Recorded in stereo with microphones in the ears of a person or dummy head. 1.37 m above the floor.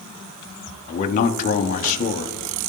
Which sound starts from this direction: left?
A man speaking, at 0.9 s.